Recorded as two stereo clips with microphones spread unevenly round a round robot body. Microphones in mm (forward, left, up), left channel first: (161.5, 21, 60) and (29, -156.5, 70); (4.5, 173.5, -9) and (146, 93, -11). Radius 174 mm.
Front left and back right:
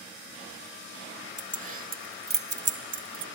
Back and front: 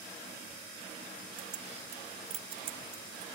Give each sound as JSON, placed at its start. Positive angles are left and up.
{"t": 1.4, "sound": "keys jangling", "azimuth_deg": -70}